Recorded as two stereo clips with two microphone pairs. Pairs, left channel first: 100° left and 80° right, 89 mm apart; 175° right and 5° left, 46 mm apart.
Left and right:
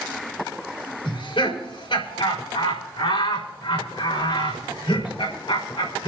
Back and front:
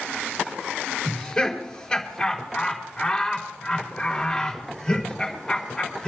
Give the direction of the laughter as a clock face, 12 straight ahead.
8 o'clock.